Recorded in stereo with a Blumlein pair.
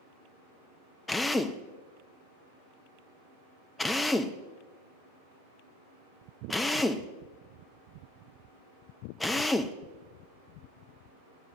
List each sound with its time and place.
1.1 s a drill: 10° left, 0.7 m